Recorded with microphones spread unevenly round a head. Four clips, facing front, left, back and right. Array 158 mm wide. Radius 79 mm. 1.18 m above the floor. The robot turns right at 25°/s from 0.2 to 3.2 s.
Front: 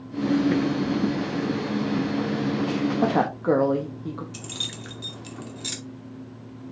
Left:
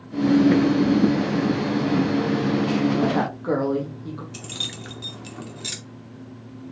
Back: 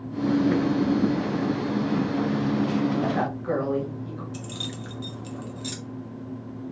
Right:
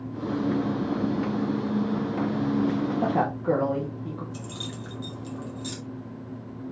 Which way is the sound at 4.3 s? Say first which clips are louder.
Right 1 dB, back 3 dB; 60° left.